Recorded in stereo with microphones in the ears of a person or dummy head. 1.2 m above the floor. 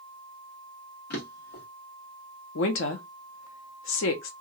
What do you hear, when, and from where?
1.1 s a drawer: 60° left (ahead or behind), 1.1 m
2.5 s a woman speaking: 60° left (ahead or behind), 0.7 m